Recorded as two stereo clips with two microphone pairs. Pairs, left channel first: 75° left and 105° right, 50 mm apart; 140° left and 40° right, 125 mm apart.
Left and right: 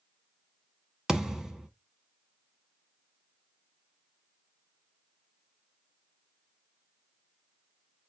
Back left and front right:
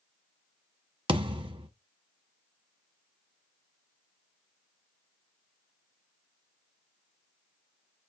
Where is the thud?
30° right, 0.8 m.